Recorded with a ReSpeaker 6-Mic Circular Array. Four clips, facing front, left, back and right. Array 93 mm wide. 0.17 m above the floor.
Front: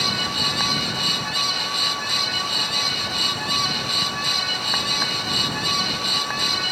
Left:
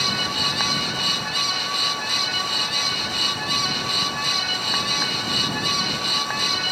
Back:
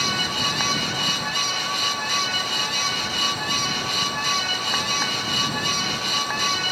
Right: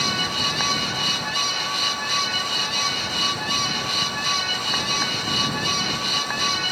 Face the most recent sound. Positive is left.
No sound to turn to.